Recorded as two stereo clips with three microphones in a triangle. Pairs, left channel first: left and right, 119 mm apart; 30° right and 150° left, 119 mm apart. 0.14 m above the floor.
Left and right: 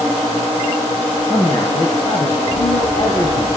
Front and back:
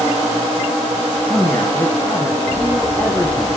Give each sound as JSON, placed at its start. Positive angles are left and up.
{"t": 1.3, "sound": "a man speaking", "azimuth_deg": 45, "distance_m": 4.0}